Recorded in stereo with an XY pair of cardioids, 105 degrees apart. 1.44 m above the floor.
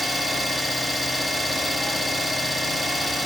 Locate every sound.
0.0 s an engine running: 15° left, 2 m